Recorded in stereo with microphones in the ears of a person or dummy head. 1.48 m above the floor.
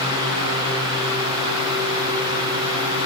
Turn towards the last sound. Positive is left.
No sound to turn to.